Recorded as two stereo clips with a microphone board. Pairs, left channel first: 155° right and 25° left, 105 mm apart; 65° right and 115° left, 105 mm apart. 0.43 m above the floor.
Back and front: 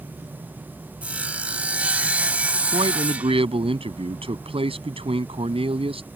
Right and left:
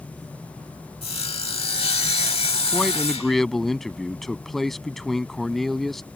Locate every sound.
1.0 s sawing: 55° right
2.7 s a man speaking: 20° left